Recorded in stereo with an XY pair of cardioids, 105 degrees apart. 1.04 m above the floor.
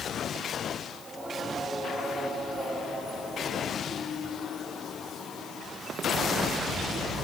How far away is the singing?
About 9.5 m.